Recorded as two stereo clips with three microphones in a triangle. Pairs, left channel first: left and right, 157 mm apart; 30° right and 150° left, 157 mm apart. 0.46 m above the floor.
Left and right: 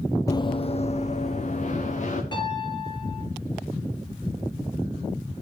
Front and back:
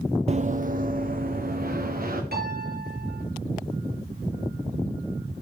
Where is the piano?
150° left, 4 m.